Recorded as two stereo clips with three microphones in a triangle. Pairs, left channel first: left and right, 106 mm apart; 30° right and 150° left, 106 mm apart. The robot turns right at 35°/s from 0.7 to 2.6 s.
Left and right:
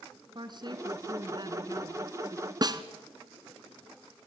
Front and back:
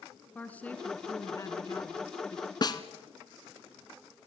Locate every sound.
0.3 s a woman speaking: 100° right, 1.8 m; by 2.5 s 35° right, 1.8 m
2.6 s a snare drum: 60° right, 1.1 m